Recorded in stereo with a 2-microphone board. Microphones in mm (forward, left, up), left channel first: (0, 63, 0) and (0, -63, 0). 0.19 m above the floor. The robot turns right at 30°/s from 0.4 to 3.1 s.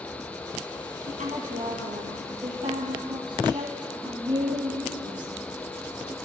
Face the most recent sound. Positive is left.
turn(degrees=-40)